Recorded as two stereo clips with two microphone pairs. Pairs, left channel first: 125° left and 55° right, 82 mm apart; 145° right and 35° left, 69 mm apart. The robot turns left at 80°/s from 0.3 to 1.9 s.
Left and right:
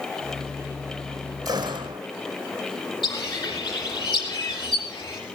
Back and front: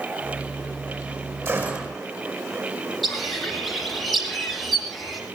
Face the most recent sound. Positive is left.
turn(degrees=125)